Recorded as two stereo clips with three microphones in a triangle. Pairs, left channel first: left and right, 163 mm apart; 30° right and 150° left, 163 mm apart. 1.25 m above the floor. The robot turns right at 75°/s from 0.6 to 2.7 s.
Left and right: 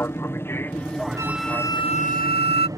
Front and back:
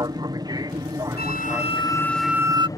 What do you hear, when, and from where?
0.0 s an aircraft: 145° left; by 2.8 s 60° right
1.2 s a flute: 20° right; by 2.7 s 95° left